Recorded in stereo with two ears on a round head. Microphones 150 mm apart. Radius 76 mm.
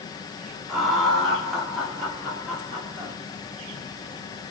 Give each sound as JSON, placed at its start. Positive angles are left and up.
{"t": 0.7, "sound": "laughter", "side_deg": 0, "distance_m": 1.0}